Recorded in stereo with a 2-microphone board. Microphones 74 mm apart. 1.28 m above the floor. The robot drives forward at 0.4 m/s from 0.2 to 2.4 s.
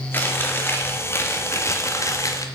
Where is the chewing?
25° left (ahead or behind), 1.7 m; by 2.5 s 45° left (ahead or behind), 1.1 m.